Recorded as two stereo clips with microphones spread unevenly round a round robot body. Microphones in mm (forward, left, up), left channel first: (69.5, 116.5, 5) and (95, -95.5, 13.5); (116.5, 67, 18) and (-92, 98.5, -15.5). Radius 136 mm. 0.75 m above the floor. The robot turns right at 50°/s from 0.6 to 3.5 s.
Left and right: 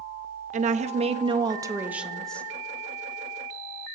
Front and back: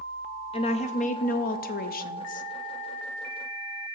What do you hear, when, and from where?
0.5 s a woman speaking: 70° right, 0.5 m; by 2.5 s 25° left, 0.5 m